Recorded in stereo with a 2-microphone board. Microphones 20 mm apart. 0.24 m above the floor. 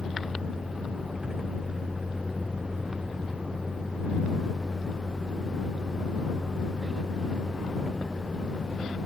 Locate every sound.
0.0 s a vehicle: 30° right (ahead or behind)